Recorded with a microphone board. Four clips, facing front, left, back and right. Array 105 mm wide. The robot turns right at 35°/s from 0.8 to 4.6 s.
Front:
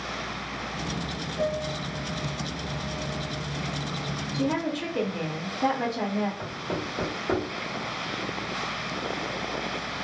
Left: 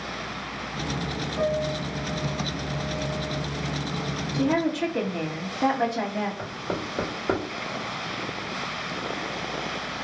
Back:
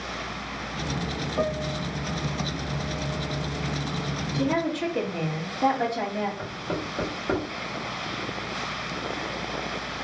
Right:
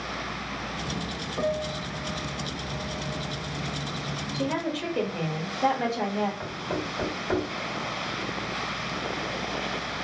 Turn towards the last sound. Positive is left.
turn(degrees=100)